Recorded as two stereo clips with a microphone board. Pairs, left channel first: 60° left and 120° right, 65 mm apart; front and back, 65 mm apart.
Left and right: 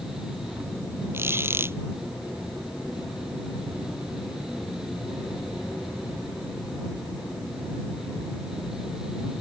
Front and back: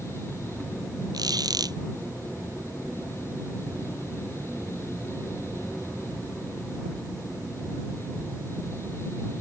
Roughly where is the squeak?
Behind.